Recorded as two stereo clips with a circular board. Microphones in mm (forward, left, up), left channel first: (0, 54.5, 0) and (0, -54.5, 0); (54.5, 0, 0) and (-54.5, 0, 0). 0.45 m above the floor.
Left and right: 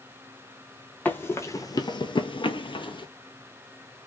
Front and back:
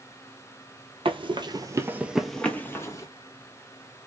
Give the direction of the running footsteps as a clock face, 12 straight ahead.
7 o'clock.